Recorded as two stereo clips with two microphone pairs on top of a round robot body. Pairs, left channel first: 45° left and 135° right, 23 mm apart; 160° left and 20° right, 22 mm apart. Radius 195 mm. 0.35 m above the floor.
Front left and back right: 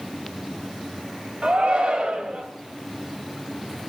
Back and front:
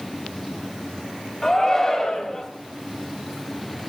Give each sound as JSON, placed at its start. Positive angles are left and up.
{"t": 1.4, "sound": "a shout", "azimuth_deg": -120, "distance_m": 3.0}